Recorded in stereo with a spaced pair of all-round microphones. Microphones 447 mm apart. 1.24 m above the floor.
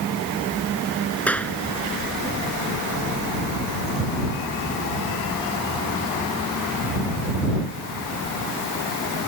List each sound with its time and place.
1.3 s a clap: 5° left (ahead or behind)